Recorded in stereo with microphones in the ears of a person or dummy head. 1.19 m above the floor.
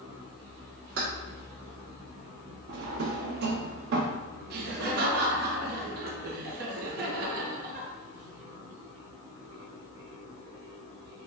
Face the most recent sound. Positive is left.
turn(degrees=-50)  # may be behind; listen again after turning